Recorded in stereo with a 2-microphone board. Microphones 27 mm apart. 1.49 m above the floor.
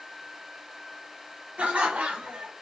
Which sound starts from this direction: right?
Laughter, at 1.6 s.